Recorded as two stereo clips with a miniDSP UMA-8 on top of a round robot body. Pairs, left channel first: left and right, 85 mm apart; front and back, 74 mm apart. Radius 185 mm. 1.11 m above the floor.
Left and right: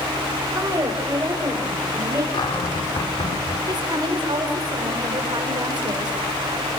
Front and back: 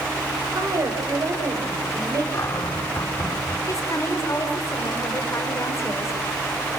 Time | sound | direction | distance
0.6 | a woman speaking | 140° right | 5.5 m
2.3 | a cupboard door | 55° left | 3 m
3.7 | a woman speaking | 50° right | 4.5 m